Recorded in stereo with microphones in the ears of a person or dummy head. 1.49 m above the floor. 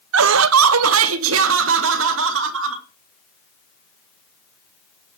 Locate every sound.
0.1 s laughter: 75° right (ahead or behind), 0.6 m